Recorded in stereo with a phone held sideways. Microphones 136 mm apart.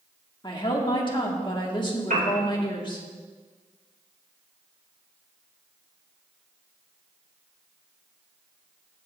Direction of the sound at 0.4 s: 35° left (ahead or behind).